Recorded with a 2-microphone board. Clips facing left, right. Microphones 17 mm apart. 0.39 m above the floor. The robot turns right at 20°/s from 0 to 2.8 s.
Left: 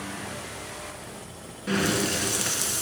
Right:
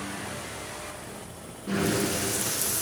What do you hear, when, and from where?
1.7 s breathing: 60° left (ahead or behind), 1.1 m; by 2.8 s 40° left (ahead or behind), 1.1 m